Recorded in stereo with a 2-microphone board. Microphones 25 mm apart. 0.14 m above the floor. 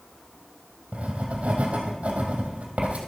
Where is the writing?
60° right (ahead or behind), 2.5 m.